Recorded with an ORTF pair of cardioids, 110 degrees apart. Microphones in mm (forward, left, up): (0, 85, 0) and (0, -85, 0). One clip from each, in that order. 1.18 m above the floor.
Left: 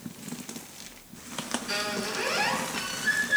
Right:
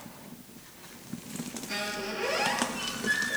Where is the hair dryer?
I don't hear a hair dryer.